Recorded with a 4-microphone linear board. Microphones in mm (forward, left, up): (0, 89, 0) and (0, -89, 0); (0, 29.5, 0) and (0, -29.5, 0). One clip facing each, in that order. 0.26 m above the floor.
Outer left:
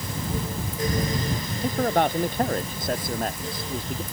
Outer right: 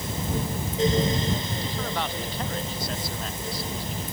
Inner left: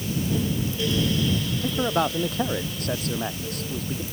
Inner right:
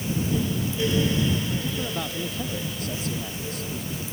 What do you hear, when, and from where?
1.6 s a man speaking: 50° left (ahead or behind)